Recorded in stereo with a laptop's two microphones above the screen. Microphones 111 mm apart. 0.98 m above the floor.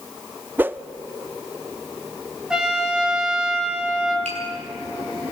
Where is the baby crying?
No baby crying in this recording.